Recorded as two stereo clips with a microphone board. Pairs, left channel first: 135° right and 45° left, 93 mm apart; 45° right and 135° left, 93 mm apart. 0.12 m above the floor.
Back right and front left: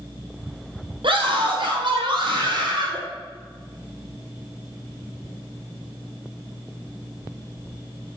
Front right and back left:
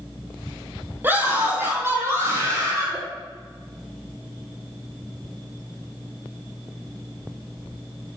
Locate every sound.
1.0 s a scream: 70° left, 3.5 m; by 3.0 s 80° left, 4 m